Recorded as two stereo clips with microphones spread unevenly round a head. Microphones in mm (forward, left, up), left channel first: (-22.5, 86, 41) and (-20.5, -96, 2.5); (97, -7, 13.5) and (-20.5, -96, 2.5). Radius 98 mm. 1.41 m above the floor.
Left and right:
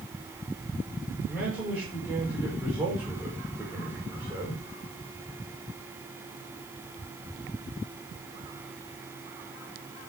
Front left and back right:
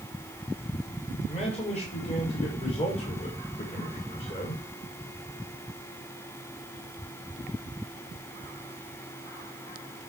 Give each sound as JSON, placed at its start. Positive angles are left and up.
{"t": 1.3, "sound": "a man speaking", "azimuth_deg": -5, "distance_m": 5.5}